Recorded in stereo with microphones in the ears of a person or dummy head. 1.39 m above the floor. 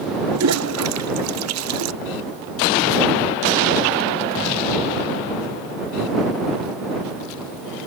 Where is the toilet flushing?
80° right.